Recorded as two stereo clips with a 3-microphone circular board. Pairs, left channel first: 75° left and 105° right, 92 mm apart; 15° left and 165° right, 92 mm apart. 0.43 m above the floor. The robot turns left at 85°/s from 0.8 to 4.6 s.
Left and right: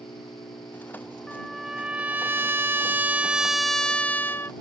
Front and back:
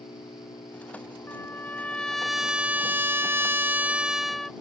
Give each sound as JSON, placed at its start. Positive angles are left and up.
{"t": 0.0, "sound": "an engine running", "azimuth_deg": 35}
{"t": 1.3, "sound": "a trumpet", "azimuth_deg": 5}